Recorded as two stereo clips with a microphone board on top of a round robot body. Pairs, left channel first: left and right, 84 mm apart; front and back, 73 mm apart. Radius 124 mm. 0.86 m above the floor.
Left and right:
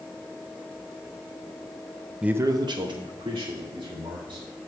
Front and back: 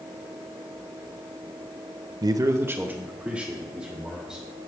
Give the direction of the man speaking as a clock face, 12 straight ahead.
6 o'clock.